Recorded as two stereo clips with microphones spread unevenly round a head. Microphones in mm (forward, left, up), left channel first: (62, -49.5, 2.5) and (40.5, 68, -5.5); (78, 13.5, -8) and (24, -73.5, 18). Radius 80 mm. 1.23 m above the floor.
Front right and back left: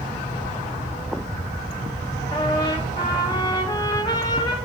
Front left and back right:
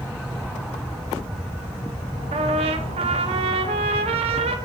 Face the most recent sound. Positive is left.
turn(degrees=-130)